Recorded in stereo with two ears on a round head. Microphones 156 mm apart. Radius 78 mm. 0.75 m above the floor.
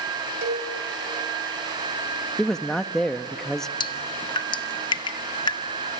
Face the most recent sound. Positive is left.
turn(degrees=25)  # may be behind; listen again after turning